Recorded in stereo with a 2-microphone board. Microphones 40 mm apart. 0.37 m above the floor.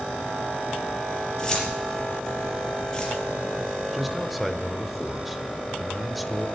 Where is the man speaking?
5° right (ahead or behind), 1.0 m.